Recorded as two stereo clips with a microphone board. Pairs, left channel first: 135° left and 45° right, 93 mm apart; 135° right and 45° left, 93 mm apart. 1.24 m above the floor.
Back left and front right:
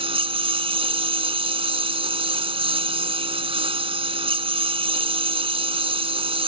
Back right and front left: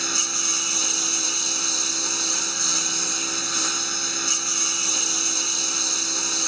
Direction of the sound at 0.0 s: 45° right.